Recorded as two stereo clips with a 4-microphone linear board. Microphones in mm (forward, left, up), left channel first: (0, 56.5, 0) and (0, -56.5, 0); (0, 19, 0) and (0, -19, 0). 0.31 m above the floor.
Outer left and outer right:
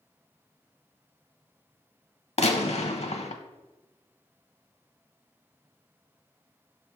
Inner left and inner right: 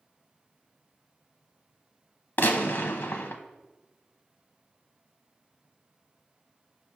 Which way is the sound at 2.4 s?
70° left (ahead or behind).